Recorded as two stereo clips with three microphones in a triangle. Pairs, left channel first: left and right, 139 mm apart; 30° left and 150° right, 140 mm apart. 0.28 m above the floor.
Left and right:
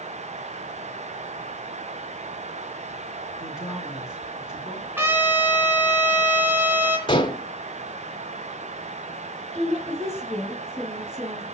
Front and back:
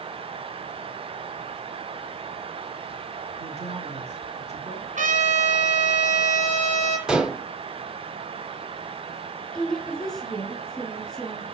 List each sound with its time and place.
3.4 s a woman speaking: 175° right, 3 m
5.0 s a trumpet: 165° right, 2 m
7.1 s dishes clattering: 130° left, 1.0 m
9.6 s a woman speaking: 55° right, 3 m